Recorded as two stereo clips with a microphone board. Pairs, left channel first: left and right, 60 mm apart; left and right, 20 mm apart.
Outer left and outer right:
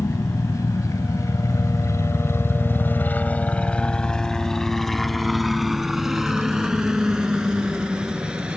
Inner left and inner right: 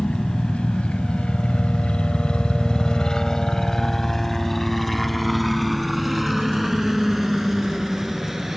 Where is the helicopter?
60° left (ahead or behind); by 8.6 s 15° right (ahead or behind).